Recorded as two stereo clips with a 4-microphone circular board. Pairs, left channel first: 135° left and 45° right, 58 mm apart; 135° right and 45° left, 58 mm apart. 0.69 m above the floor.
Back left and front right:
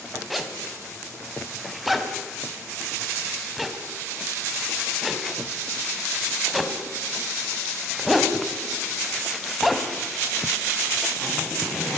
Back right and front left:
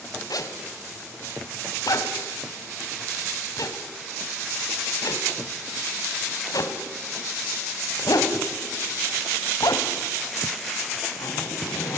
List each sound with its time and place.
0.3 s a zipper: 130° right, 1.9 m